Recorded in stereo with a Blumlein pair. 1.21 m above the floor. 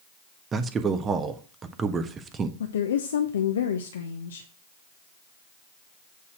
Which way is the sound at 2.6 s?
65° left.